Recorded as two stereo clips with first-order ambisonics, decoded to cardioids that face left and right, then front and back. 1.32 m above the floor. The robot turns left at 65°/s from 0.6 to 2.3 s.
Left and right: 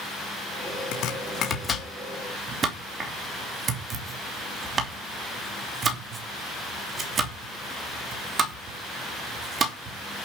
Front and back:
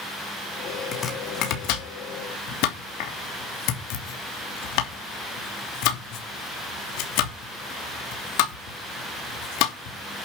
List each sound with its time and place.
0.9 s chopping: 70° left, 3 m; by 10.2 s 20° right, 3 m